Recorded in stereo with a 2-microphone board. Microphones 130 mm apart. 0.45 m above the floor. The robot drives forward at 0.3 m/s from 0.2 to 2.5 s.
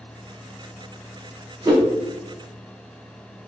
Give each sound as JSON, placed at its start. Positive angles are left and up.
{"t": 1.6, "sound": "a whoosh", "side_deg": -30, "distance_m": 0.6}